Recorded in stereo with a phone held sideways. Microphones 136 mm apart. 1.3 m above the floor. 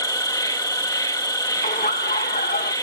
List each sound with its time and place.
0.0 s an insect: 25° left (ahead or behind)
1.6 s laughter: 85° left